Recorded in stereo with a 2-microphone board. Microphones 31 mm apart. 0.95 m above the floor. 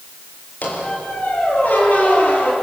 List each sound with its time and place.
0.6 s a squeak: 70° left (ahead or behind), 6.5 m